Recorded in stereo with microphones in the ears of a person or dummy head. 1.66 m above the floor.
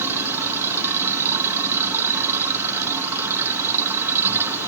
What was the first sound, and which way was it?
A machine running, 15° right (ahead or behind).